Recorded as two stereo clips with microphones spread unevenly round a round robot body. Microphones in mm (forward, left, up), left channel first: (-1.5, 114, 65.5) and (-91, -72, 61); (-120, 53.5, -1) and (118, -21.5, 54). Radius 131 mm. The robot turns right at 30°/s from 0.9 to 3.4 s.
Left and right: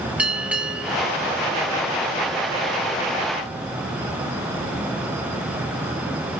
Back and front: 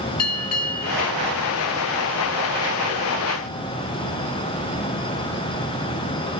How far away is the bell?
About 2 m.